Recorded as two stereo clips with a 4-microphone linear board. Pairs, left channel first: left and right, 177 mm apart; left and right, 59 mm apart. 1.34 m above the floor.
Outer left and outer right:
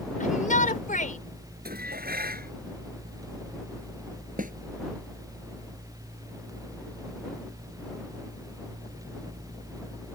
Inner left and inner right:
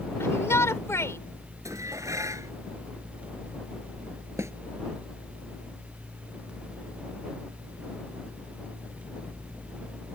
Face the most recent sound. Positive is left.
turn(degrees=-50)  # may be behind; listen again after turning